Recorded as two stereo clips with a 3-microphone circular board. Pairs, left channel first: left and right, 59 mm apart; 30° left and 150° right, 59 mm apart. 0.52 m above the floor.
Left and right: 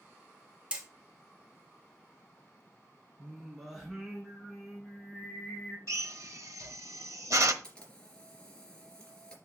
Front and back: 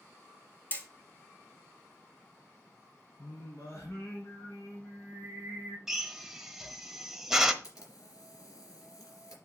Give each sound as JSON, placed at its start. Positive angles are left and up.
{"t": 0.7, "sound": "hammering", "azimuth_deg": -25, "distance_m": 1.9}
{"t": 3.2, "sound": "singing", "azimuth_deg": -5, "distance_m": 4.0}
{"t": 5.9, "sound": "a drill", "azimuth_deg": -65, "distance_m": 0.9}
{"t": 7.6, "sound": "a camera shutter", "azimuth_deg": 15, "distance_m": 3.0}